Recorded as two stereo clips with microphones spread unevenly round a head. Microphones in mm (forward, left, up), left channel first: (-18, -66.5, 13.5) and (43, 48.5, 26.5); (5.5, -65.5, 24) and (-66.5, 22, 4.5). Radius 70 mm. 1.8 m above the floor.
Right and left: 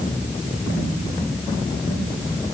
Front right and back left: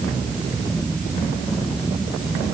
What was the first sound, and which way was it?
Only background noise.